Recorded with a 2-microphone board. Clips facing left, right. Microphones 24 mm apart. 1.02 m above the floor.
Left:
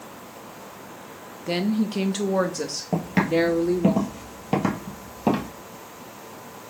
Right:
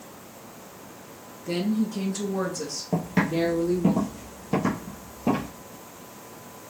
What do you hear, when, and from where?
1.5 s a woman speaking: 25° left (ahead or behind), 0.6 m; by 3.9 s 75° left (ahead or behind), 1.5 m
2.9 s footsteps: 20° left (ahead or behind), 1.2 m; by 5.5 s 60° left (ahead or behind), 1.9 m